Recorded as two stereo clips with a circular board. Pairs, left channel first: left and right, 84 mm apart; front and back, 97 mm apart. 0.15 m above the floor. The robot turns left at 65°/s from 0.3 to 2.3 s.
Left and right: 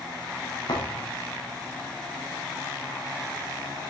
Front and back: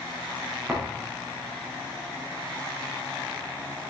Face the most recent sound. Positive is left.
turn(degrees=-10)